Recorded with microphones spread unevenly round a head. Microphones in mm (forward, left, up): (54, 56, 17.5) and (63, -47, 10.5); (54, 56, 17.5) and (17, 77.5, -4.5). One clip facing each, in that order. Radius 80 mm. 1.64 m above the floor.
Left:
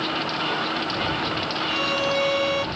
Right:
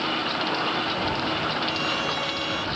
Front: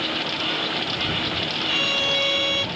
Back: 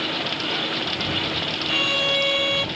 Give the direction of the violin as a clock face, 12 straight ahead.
10 o'clock.